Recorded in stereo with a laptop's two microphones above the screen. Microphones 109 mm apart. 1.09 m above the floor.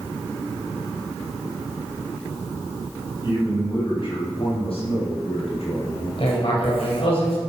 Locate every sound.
3.2 s a man speaking: 40° left (ahead or behind), 7 m; by 6.1 s 75° left (ahead or behind), 7 m
6.2 s writing: 60° left (ahead or behind), 4.5 m